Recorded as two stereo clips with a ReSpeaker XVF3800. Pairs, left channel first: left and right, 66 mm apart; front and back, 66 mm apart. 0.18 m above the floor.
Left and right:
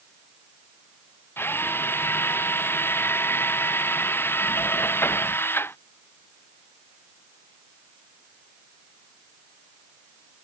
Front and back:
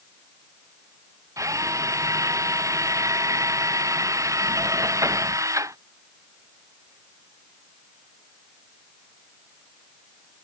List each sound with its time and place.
1.4 s a drill: 145° left